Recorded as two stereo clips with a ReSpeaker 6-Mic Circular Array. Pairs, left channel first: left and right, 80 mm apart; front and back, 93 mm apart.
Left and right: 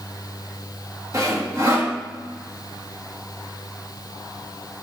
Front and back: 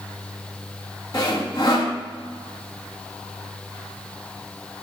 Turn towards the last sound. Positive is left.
turn(degrees=-45)